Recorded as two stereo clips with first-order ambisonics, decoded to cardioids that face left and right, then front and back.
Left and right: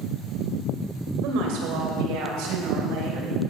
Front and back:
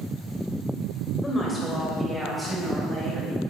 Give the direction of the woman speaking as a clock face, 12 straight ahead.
2 o'clock.